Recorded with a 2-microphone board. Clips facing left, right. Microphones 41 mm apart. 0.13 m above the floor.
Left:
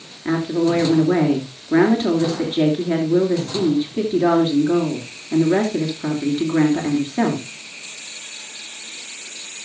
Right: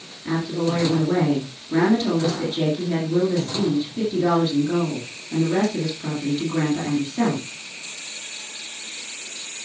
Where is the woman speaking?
40° left (ahead or behind), 2.5 m.